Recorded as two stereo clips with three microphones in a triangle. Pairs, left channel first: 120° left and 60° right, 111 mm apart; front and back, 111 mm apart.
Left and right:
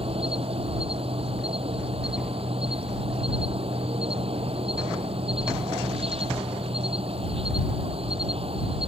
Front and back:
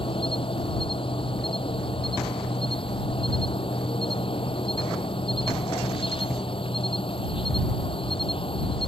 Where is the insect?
35° right.